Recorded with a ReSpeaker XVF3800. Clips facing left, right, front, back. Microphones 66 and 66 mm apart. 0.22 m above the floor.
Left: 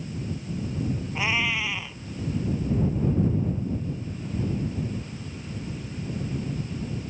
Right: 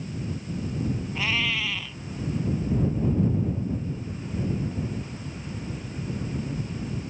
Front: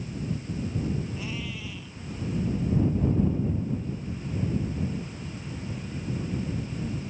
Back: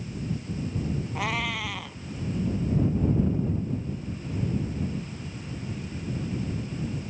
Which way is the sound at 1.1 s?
160° left.